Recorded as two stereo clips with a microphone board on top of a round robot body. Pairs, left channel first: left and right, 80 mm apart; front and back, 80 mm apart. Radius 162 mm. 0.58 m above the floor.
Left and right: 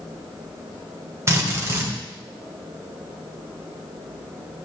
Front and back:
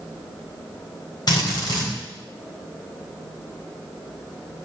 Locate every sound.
1.3 s a drill: 35° right, 3.5 m